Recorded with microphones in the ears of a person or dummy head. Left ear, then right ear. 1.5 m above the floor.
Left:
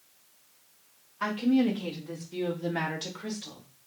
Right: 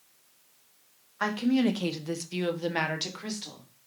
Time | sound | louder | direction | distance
1.2 | a woman speaking | even | 55° right (ahead or behind) | 1.0 m